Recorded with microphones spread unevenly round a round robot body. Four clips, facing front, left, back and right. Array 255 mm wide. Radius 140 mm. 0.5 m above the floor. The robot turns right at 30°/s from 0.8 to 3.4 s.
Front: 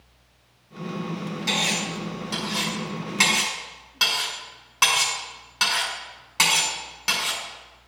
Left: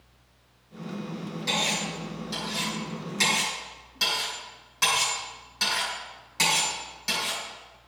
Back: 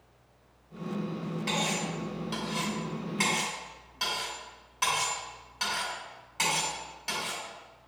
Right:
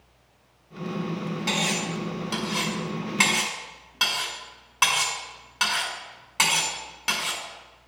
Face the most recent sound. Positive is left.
turn(degrees=-35)